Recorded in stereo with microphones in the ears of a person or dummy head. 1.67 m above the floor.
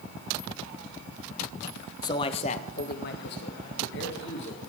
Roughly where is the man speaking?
Left.